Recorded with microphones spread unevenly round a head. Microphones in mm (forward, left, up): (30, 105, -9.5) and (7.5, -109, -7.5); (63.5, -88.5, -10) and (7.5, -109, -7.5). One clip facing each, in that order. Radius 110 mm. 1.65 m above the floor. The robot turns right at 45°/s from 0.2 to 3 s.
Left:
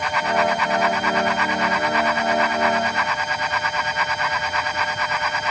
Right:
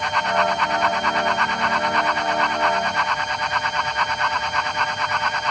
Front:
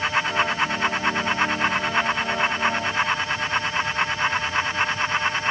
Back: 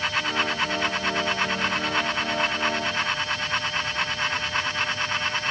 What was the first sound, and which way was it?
Only background noise.